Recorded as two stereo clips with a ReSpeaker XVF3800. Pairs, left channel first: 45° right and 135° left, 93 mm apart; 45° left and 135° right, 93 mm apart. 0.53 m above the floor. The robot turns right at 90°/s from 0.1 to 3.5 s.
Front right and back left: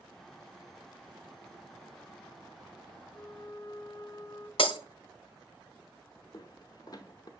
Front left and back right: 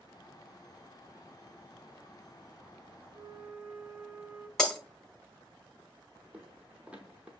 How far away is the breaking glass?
About 0.9 m.